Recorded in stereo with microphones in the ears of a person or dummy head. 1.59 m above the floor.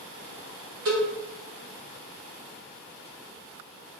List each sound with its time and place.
0.8 s a cowbell: 55° right (ahead or behind), 1.1 m